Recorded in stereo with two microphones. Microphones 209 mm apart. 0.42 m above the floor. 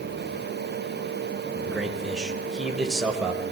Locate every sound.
1.7 s a man speaking: centre (ahead or behind), 2 m